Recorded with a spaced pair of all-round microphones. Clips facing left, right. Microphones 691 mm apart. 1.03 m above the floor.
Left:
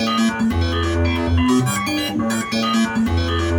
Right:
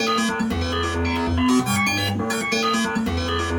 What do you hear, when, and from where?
0.0 s a machine running: 5° left (ahead or behind), 1.9 m